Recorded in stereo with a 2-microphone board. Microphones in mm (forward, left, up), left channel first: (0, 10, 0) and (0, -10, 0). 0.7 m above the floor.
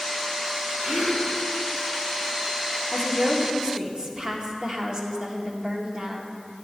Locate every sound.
0.8 s a gasp: 75° right (ahead or behind), 4 m
2.9 s a woman speaking: 50° right (ahead or behind), 1.8 m